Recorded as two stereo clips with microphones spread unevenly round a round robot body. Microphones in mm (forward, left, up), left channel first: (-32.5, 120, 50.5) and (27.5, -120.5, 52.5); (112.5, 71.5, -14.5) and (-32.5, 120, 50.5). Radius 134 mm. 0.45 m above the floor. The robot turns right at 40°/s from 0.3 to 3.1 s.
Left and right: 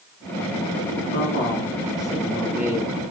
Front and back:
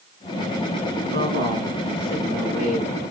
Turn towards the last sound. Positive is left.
turn(degrees=-140)